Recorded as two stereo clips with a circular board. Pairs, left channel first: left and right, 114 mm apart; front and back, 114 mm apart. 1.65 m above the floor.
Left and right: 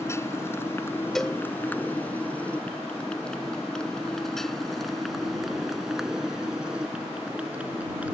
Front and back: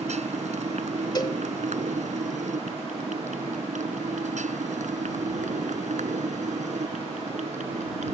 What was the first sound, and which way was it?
A motorcycle, 155° left.